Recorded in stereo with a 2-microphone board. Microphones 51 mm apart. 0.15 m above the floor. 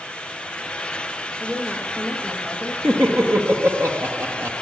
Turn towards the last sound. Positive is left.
turn(degrees=-60)  # may be behind; listen again after turning